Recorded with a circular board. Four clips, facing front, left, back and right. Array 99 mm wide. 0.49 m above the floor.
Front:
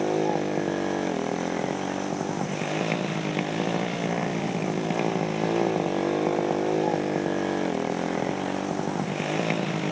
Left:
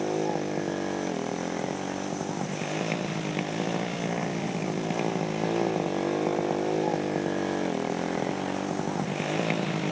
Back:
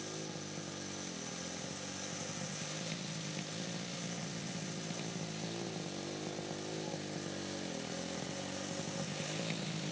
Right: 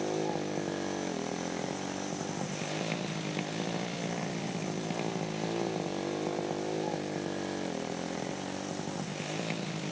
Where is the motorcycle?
20° left; by 9.9 s 35° left.